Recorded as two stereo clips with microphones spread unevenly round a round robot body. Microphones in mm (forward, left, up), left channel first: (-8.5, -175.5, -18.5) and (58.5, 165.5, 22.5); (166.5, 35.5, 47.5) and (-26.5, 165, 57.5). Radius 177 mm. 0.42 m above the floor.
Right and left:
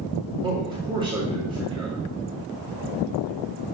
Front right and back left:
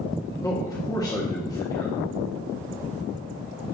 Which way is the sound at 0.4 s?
5° left.